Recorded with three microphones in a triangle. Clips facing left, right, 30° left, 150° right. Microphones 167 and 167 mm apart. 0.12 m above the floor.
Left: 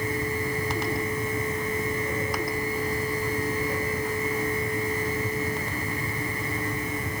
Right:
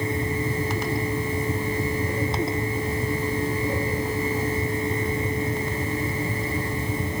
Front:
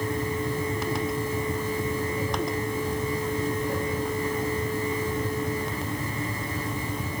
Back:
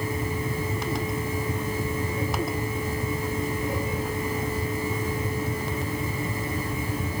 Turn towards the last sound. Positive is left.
No sound to turn to.